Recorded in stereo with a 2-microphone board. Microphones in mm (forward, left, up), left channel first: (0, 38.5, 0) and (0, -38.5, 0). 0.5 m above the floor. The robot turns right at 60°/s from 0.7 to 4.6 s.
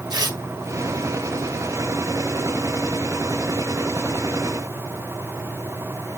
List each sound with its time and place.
0.1 s tearing paper: 65° right (ahead or behind), 1.6 m